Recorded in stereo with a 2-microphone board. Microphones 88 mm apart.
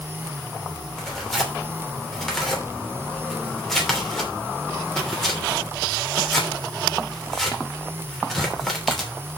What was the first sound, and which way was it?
Tearing paper, 5° left (ahead or behind).